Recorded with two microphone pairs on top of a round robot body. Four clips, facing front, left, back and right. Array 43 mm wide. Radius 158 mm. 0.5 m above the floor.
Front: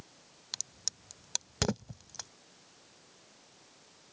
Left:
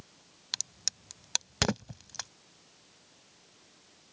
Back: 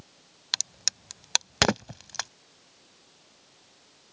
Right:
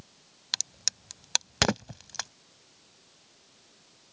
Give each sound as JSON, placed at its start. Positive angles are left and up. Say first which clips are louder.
{"t": 0.5, "sound": "a crack", "louder": "right 5 dB, back 13 dB", "azimuth_deg": -165}